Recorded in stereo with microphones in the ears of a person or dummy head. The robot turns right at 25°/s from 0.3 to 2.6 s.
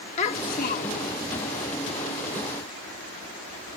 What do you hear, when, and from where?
0.2 s a child speaking: 40° left (ahead or behind); by 1.2 s 60° left (ahead or behind)